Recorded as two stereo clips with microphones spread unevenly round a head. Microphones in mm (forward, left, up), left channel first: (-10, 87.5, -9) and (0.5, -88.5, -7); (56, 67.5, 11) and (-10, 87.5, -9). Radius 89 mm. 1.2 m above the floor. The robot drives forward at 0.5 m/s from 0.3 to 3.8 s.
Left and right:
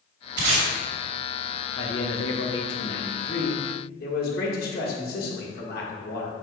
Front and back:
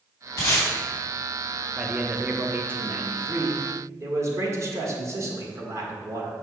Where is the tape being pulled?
65° right, 2 m.